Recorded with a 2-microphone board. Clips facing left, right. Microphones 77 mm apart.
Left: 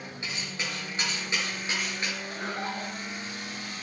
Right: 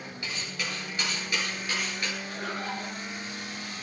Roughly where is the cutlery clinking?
Left.